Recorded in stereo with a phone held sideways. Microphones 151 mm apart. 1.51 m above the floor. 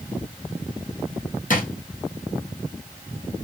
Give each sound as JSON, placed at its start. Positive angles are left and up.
{"t": 1.5, "sound": "a drawer", "side_deg": 65, "distance_m": 1.3}